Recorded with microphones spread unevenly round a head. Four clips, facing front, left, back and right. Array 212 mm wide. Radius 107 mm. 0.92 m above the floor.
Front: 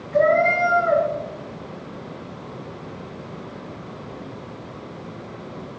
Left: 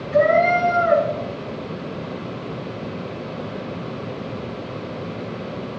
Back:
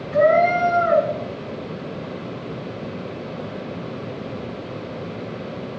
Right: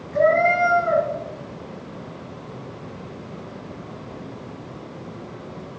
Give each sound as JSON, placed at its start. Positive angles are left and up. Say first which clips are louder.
{"t": 0.1, "sound": "a cat meowing", "louder": "left 2 dB, back 2 dB", "azimuth_deg": 105, "distance_m": 5.0}